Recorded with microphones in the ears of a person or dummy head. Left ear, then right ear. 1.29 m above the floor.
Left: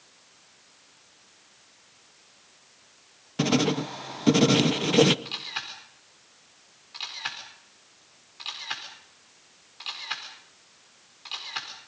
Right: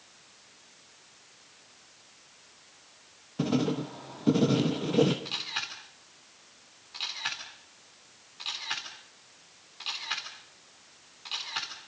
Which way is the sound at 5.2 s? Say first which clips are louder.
Even; 5° left (ahead or behind).